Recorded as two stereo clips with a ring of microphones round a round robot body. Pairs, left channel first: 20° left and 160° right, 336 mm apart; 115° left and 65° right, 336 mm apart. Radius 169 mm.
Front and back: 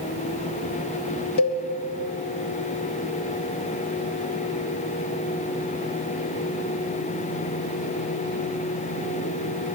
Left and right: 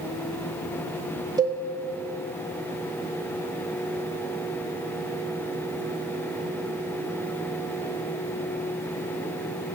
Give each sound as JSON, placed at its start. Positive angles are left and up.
{"t": 1.4, "sound": "a cowbell", "azimuth_deg": 10, "distance_m": 0.7}